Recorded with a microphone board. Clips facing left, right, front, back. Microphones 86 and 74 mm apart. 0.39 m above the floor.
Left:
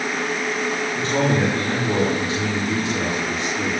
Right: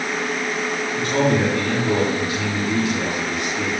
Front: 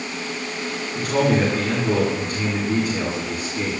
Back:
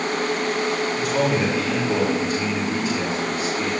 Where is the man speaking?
30° left, 5.5 m.